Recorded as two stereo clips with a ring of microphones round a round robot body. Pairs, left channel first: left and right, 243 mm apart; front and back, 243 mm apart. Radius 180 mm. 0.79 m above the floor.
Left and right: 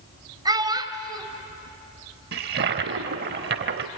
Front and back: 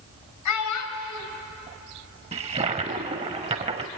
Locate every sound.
0.5 s a child speaking: 15° right, 3 m
2.3 s a toilet flushing: 120° right, 0.7 m